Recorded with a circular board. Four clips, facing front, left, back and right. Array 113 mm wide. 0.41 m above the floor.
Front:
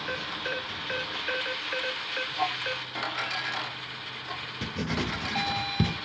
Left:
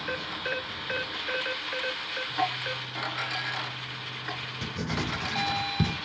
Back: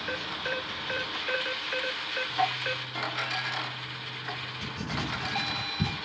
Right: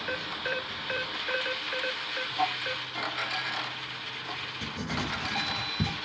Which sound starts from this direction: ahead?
Writing, at 4.6 s.